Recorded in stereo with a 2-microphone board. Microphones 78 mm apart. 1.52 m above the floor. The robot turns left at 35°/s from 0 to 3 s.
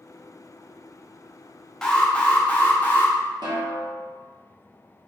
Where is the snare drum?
75° right (ahead or behind), 1.2 m.